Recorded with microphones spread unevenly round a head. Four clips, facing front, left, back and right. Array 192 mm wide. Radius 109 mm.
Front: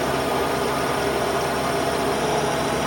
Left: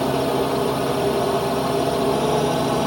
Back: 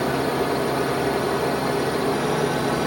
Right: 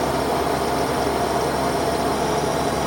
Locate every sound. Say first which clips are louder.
0.0 s a drone: left 1 dB, even; 120° left